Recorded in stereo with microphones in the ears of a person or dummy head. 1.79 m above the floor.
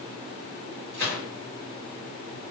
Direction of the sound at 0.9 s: 60° right (ahead or behind).